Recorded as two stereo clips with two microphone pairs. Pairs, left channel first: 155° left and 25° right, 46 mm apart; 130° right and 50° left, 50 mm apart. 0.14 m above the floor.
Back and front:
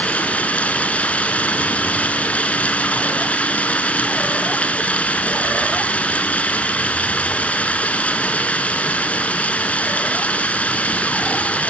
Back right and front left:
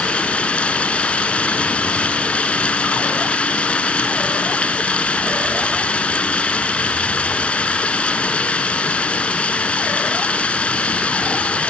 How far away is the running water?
About 1.2 m.